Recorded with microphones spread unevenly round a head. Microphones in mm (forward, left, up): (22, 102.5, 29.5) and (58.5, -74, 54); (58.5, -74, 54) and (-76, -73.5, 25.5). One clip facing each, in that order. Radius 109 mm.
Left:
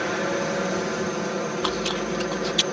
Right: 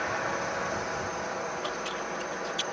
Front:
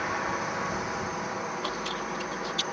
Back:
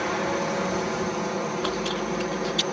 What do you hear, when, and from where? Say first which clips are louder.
0.0 s a helicopter: left 8 dB, back 6 dB; 130° left
1.6 s chewing: left 9 dB, back 6 dB; 120° left